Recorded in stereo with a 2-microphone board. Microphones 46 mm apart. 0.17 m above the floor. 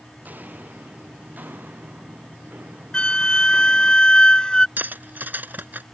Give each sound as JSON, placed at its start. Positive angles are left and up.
{"t": 0.2, "sound": "footsteps", "side_deg": -40}
{"t": 2.9, "sound": "a flute", "side_deg": 25}
{"t": 4.8, "sound": "cutlery clinking", "side_deg": -45}